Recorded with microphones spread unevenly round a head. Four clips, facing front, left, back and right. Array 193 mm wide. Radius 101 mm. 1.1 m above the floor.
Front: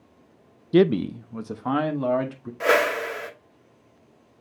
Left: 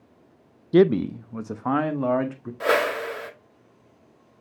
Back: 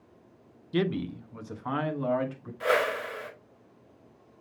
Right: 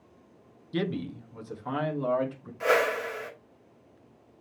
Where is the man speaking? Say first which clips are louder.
Left 14 dB, front 10 dB; 50° left, 0.5 m; by 2.5 s 60° left, 2 m.